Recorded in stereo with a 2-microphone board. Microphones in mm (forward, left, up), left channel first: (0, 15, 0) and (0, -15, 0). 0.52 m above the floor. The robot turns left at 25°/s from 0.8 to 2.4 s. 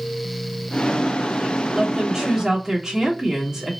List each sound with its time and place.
1.7 s a woman speaking: 15° right (ahead or behind), 1.2 m; by 3.7 s 20° right (ahead or behind), 1.2 m